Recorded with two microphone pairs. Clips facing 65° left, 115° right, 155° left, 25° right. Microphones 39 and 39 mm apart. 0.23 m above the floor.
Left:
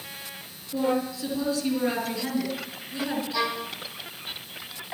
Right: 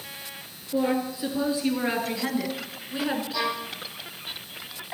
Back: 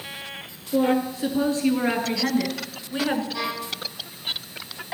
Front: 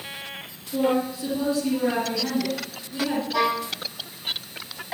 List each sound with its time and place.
0.7 s a woman speaking: 175° right, 4.5 m; by 3.2 s 170° right, 2.5 m
3.3 s a violin: 25° right, 4.5 m